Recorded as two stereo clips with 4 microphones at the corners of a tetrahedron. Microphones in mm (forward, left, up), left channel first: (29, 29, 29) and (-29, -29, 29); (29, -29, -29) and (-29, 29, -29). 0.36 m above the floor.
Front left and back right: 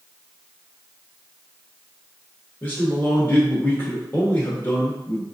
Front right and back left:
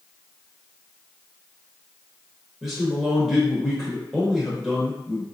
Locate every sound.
2.6 s a man speaking: 50° left, 0.8 m